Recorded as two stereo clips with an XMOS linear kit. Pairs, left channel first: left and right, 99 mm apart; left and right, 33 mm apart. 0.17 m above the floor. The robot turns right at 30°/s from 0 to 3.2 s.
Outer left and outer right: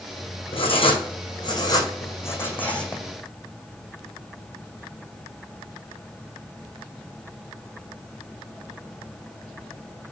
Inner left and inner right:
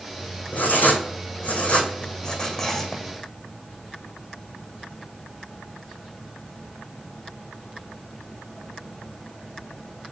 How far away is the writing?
About 1.4 m.